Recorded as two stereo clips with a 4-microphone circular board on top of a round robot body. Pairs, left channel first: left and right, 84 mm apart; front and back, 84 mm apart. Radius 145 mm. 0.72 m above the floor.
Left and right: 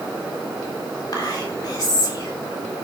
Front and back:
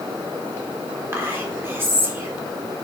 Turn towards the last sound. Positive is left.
turn(degrees=120)